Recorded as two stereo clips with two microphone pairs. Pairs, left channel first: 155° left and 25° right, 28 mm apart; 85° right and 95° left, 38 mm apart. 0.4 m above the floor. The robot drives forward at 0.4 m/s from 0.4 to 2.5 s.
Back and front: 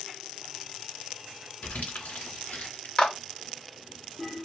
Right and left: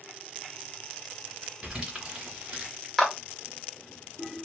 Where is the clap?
175° right, 0.9 m.